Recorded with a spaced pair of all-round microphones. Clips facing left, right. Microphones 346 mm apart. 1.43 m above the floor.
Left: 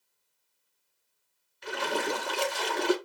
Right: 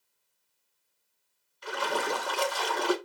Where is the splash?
30° left (ahead or behind), 1.0 m.